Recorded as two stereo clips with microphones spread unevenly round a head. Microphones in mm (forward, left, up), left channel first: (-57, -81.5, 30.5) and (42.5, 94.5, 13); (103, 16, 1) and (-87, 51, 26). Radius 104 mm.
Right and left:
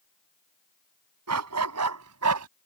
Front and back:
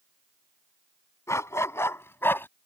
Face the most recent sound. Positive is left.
turn(degrees=70)